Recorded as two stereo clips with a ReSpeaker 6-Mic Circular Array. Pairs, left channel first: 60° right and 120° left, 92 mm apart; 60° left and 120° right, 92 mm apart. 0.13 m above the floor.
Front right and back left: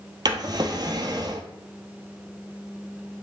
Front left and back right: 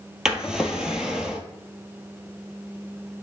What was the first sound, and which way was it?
A drawer, 160° left.